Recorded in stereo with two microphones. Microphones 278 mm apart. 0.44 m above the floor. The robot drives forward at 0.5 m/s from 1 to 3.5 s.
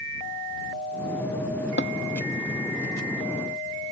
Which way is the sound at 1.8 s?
40° left (ahead or behind).